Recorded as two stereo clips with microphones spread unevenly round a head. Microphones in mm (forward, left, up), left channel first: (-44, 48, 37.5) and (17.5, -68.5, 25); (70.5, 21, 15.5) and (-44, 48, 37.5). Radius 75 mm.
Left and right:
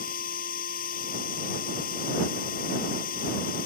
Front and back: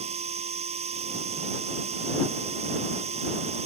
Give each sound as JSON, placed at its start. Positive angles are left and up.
{"t": 0.0, "sound": "a machine running", "azimuth_deg": 135}